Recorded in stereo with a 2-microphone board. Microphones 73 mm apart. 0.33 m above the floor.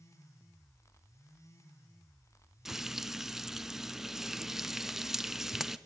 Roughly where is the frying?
Centre.